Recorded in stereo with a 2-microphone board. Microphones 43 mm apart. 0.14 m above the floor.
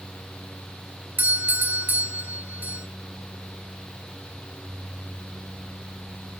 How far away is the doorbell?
About 2.5 m.